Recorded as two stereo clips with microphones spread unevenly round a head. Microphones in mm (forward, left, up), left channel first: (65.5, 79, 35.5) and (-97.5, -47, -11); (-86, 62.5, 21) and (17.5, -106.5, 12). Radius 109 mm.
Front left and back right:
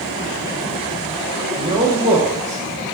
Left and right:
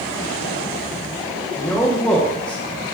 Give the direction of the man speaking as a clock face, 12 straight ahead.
5 o'clock.